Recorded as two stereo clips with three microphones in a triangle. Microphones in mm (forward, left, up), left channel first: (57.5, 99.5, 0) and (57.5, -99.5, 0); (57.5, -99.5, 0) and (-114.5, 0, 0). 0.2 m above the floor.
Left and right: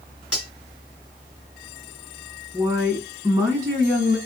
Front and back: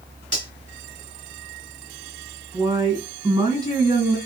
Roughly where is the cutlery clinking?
Behind.